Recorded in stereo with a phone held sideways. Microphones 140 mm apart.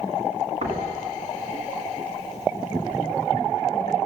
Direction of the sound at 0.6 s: 50° right (ahead or behind).